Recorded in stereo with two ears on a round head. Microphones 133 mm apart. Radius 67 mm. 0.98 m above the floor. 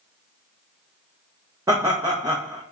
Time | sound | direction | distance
1.7 | laughter | 20° right (ahead or behind) | 0.7 m